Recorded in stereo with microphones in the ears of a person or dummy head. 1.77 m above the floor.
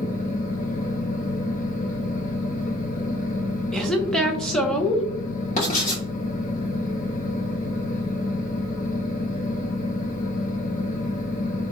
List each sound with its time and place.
0.0 s a fan: 45° left (ahead or behind), 0.7 m
3.7 s a woman speaking: 5° left (ahead or behind), 0.6 m
5.6 s writing: 45° left (ahead or behind), 1.8 m